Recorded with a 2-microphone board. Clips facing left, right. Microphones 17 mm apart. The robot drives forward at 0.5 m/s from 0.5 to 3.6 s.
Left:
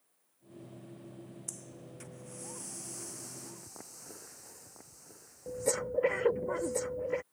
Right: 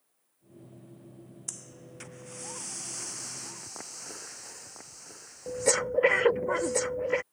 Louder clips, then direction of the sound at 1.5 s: Right 3 dB; 35° right (ahead or behind).